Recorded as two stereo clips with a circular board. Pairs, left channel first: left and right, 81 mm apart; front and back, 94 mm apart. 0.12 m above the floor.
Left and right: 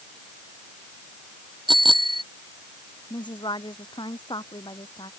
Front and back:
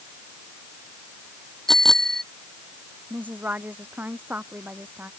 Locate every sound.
1.7 s a bicycle bell: 85° right
3.1 s a woman speaking: 110° left